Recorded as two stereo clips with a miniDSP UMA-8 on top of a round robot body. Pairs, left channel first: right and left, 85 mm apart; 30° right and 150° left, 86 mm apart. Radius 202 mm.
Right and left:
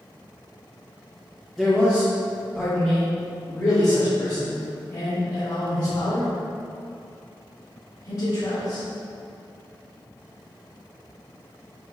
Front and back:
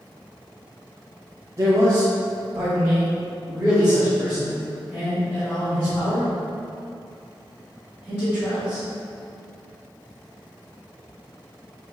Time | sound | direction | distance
1.6 | a man speaking | straight behind | 1.6 m